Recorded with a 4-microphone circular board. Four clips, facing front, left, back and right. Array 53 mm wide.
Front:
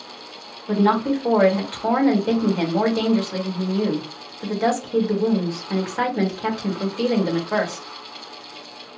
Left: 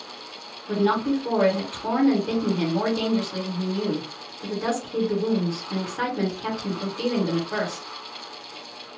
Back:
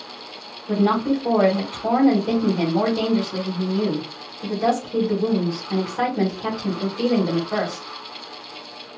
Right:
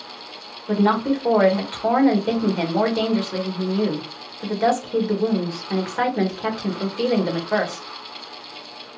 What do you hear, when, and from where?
0.7 s a woman speaking: 60° right, 1.6 m